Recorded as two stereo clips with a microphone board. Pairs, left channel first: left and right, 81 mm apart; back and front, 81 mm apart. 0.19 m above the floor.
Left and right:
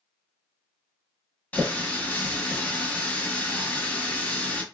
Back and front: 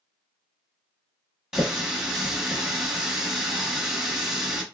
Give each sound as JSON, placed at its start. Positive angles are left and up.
{"t": 1.5, "sound": "a running tap", "azimuth_deg": 75, "distance_m": 0.9}